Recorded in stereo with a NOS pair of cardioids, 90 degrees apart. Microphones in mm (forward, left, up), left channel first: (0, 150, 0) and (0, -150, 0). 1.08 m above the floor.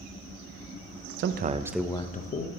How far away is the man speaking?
About 0.6 m.